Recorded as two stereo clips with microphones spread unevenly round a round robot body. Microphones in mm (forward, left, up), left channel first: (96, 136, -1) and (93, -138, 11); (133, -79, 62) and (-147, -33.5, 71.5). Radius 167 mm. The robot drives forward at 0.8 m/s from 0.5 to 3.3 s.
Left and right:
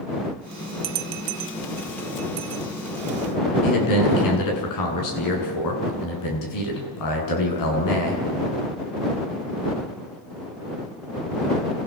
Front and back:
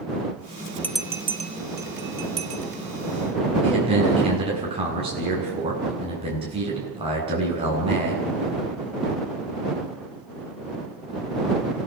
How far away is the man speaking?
About 9 m.